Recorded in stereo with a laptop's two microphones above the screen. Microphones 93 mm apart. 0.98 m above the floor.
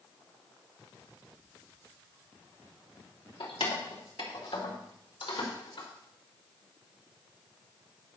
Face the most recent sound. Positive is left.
turn(degrees=70)  # may be behind; listen again after turning